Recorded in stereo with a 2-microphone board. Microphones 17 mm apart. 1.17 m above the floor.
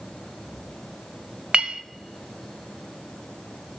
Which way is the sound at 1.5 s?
75° right (ahead or behind).